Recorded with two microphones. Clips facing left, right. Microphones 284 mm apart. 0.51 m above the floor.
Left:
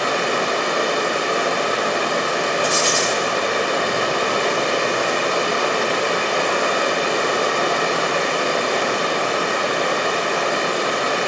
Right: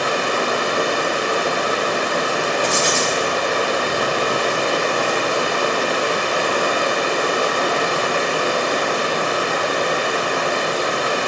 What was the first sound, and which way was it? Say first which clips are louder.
Running water: even; 5° right (ahead or behind).